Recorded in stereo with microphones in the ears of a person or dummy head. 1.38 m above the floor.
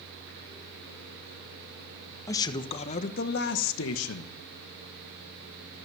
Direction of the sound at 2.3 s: 15° left (ahead or behind).